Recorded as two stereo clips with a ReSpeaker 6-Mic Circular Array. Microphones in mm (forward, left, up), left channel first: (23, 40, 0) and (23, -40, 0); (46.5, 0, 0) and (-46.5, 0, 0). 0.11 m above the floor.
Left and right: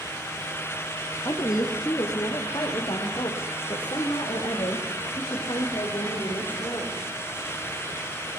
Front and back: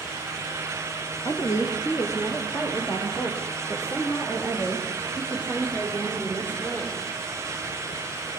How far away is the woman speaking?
About 4 m.